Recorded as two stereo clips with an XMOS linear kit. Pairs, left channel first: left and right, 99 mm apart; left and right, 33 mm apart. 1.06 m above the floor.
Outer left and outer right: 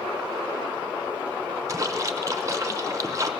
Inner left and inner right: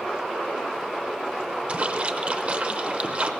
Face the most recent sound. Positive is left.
turn(degrees=-30)  # may be behind; listen again after turning